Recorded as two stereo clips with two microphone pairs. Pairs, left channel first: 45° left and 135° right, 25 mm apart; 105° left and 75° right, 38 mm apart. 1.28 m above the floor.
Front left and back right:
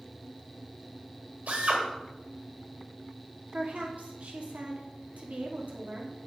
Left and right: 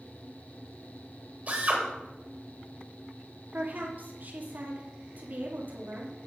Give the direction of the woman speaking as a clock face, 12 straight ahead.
4 o'clock.